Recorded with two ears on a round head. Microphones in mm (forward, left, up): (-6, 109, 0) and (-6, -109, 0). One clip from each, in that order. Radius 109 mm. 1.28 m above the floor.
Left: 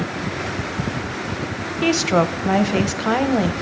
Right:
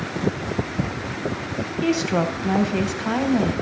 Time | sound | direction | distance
1.8 | a woman speaking | 20° left (ahead or behind) | 0.6 m